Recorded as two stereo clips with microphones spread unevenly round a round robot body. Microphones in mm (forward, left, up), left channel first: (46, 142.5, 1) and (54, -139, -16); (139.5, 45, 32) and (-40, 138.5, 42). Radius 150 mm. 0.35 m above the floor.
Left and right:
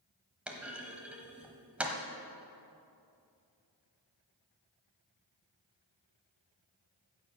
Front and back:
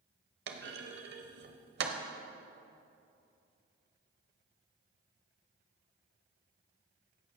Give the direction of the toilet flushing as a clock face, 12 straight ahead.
I don't hear a toilet flushing.